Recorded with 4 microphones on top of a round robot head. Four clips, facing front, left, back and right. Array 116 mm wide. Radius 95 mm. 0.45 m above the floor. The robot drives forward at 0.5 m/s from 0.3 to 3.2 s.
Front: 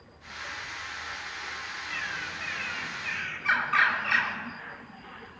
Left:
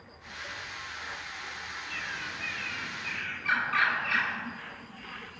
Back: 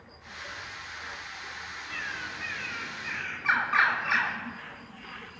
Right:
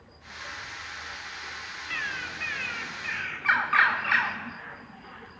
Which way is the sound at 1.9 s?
100° right.